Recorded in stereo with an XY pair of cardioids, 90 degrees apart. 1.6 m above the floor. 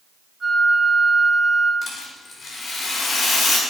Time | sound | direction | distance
0.4 | a flute | 15° right | 3.5 m
1.8 | a rattle | 55° left | 2.5 m